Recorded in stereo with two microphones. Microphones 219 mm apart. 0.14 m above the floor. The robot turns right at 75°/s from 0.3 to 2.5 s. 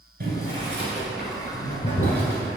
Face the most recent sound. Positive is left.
turn(degrees=55)  # may be behind; listen again after turning